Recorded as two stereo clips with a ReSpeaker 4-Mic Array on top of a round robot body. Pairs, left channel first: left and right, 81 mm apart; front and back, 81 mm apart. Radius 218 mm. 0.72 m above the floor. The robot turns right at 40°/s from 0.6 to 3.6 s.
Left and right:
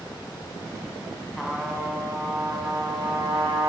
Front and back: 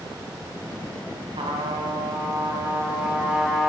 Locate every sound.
1.4 s a trumpet: straight behind, 3 m; by 3.7 s 90° right, 3 m